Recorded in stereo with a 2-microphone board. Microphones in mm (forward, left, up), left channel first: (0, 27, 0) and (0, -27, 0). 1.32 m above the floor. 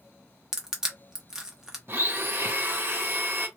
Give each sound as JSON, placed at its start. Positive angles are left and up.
{"t": 0.5, "sound": "crushing", "side_deg": -10, "distance_m": 0.7}
{"t": 1.9, "sound": "a blender", "side_deg": -45, "distance_m": 0.5}